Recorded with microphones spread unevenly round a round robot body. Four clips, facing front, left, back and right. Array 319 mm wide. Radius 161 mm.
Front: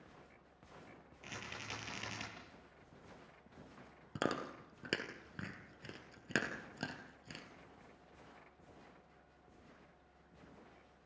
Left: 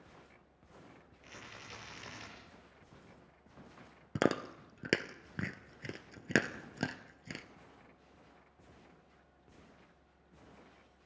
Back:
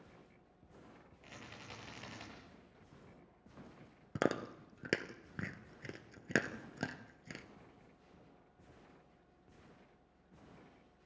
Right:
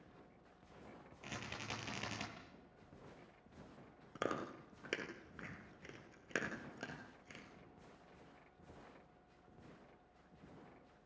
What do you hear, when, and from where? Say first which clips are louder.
1.2 s a rattle: right 4 dB, front 4 dB; 65° right, 9.5 m
4.2 s chewing: left 9 dB, back 3 dB; 90° left, 1.9 m